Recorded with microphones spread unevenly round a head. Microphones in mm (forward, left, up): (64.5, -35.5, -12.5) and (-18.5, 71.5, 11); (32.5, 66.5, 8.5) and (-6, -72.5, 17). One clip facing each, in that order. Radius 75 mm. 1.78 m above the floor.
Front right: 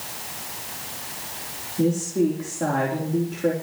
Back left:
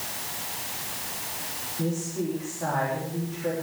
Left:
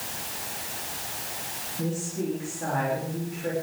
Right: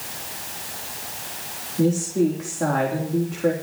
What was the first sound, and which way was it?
A woman speaking, 90° right.